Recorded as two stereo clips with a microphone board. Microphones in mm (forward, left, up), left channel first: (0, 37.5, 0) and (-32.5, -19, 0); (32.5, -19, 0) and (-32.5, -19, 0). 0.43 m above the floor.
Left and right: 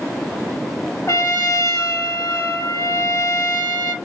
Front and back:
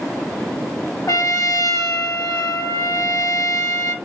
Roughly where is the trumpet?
Ahead left.